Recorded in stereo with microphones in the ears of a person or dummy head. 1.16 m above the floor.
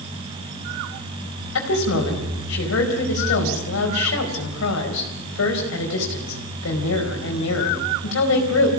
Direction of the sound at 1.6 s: 70° left (ahead or behind).